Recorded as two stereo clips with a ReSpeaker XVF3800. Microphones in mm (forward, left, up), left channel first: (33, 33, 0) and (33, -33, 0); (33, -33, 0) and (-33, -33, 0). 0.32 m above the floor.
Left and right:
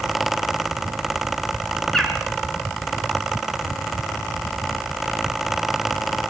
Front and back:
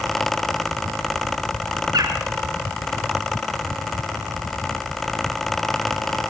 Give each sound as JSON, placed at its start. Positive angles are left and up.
{"t": 1.9, "sound": "a bird", "azimuth_deg": 175, "distance_m": 3.5}